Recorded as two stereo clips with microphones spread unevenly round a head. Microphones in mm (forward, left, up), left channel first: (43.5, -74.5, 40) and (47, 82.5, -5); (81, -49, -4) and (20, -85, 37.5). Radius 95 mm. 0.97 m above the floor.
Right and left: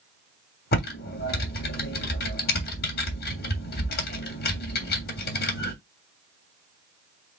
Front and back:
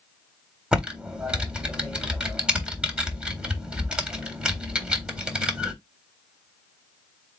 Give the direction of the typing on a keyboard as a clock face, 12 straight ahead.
3 o'clock.